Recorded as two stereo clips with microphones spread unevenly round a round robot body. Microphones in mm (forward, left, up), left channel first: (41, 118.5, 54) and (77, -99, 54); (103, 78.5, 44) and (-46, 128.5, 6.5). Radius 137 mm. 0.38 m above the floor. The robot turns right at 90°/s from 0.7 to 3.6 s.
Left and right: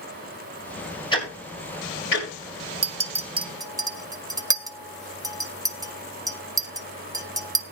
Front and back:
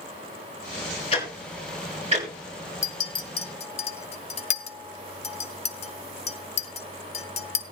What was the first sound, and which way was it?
Ticking, 30° left.